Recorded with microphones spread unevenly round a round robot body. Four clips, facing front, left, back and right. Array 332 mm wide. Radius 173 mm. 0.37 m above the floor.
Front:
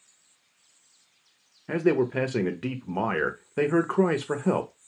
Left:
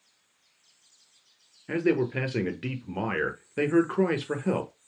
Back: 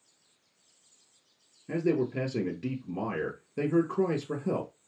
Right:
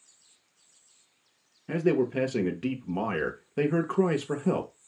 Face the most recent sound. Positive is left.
turn(degrees=0)